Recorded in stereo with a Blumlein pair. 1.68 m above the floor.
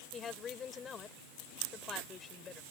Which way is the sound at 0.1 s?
20° left.